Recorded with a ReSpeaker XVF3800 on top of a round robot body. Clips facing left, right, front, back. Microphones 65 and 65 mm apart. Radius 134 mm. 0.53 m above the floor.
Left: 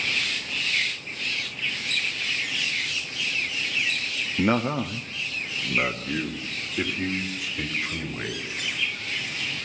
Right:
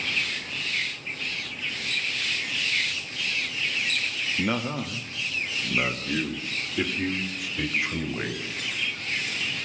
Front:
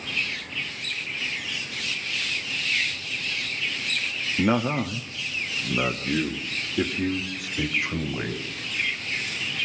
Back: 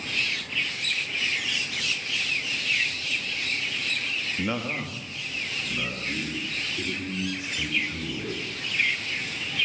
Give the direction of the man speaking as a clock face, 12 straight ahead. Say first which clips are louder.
Left 6 dB, front 9 dB; 11 o'clock.